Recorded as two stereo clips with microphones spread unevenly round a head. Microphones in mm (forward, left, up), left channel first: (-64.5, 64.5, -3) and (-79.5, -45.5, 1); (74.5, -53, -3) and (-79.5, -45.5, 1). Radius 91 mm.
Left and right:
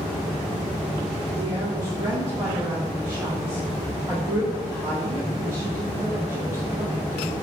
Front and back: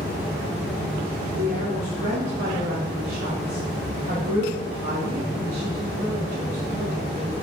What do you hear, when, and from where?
1.4 s a woman speaking: 150° right, 3.5 m